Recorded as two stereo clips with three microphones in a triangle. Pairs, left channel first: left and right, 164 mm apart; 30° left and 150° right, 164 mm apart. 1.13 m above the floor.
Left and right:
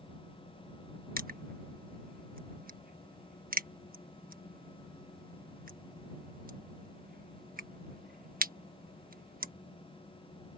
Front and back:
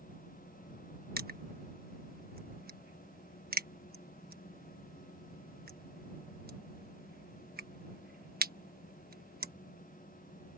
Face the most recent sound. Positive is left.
turn(degrees=-125)